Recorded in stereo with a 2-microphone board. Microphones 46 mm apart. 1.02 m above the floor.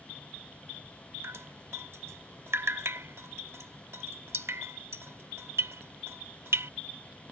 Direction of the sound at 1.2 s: 70° right (ahead or behind).